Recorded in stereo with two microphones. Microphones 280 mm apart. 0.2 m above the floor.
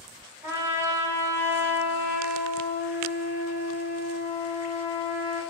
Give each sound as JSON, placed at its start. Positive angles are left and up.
{"t": 0.4, "sound": "a trumpet", "side_deg": -10, "distance_m": 1.0}